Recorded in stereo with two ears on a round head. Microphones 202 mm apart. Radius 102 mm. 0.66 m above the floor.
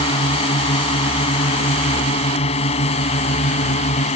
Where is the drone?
25° left (ahead or behind); by 4.2 s 30° left (ahead or behind).